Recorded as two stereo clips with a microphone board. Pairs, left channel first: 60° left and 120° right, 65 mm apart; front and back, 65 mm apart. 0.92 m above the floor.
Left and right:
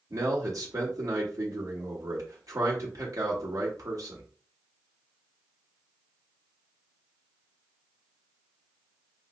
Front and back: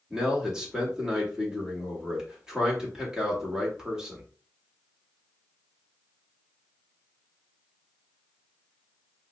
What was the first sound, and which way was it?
A man speaking, 100° right.